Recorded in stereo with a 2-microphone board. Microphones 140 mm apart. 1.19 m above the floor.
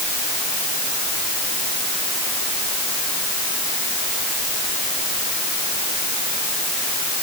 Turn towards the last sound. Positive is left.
No sound to turn to.